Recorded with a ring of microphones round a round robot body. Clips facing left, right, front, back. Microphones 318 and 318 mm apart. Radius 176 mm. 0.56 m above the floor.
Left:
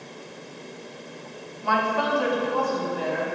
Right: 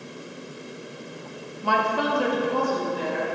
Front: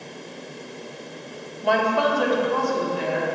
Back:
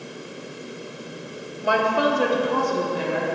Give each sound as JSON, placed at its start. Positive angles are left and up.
{"t": 1.6, "sound": "a woman speaking", "azimuth_deg": -95, "distance_m": 0.7}